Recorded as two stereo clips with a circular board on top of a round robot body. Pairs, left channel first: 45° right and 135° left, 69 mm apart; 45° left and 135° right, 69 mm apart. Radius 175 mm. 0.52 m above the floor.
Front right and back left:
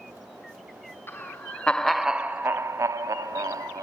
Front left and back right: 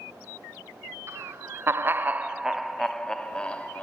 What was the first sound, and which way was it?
Laughter, 90° right.